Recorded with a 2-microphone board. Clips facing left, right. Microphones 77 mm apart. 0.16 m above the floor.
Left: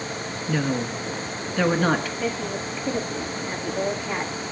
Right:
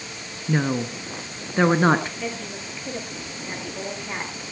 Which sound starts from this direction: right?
A woman speaking, at 0.5 s.